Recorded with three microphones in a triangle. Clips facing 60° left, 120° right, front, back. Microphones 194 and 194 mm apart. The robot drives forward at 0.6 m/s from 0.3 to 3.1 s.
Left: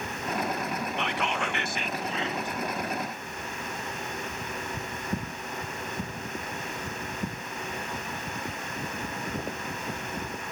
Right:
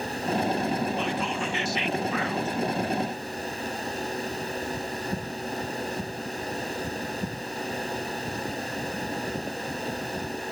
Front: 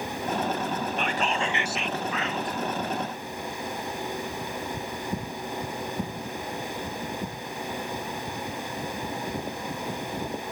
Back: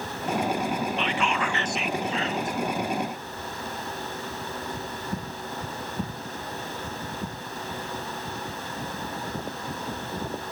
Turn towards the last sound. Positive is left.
turn(degrees=150)